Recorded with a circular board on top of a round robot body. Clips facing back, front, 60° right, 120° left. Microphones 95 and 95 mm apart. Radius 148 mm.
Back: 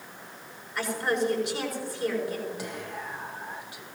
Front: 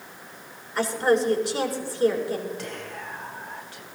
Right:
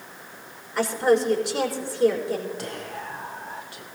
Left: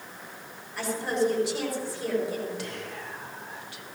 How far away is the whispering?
About 2.5 m.